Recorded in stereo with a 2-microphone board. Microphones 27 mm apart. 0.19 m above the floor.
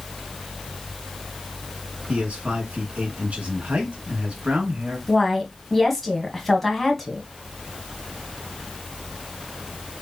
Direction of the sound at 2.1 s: 55° right (ahead or behind).